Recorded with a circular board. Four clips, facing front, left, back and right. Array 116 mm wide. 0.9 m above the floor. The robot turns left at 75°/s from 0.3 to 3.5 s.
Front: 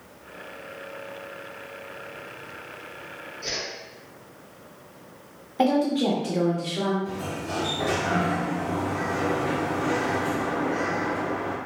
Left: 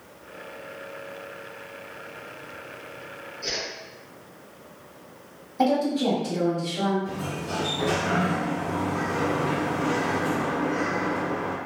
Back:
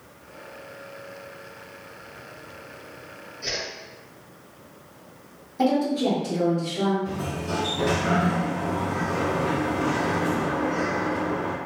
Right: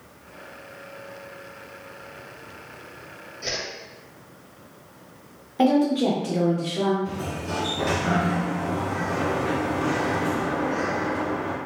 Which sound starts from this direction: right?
A whoosh, at 3.4 s.